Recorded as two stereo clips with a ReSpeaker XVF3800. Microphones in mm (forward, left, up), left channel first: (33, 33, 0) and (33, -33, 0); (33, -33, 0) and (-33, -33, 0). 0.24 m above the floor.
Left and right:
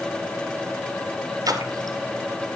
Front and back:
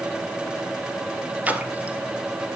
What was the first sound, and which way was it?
A splash, 110° right.